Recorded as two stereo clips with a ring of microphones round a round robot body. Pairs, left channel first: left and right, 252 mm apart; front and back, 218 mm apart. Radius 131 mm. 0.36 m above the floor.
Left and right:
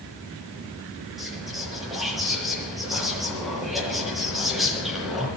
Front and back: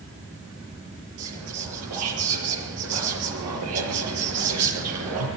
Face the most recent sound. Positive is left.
turn(degrees=180)